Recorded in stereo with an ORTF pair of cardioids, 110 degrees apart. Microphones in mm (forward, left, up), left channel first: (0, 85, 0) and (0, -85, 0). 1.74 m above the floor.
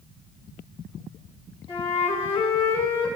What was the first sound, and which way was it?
A flute, 35° left.